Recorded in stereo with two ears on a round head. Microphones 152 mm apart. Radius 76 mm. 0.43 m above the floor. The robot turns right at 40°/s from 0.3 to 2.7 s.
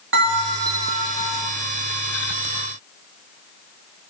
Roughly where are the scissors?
No scissors in this recording.